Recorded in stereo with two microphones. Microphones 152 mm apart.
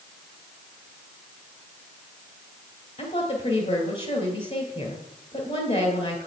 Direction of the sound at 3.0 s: 45° left (ahead or behind).